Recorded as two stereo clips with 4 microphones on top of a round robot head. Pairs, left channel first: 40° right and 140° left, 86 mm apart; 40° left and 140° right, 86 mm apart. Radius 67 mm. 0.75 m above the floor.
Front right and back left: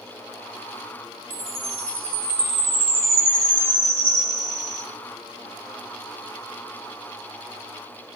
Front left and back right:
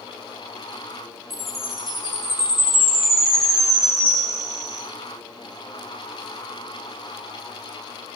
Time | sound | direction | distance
1.3 | a chime | 130° left | 2.0 m